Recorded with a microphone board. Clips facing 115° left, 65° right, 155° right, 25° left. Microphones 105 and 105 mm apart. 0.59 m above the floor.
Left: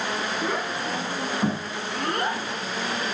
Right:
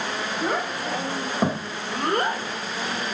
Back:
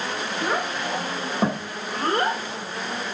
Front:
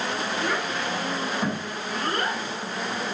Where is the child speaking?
105° right, 3 m; by 2.4 s 110° right, 1.7 m.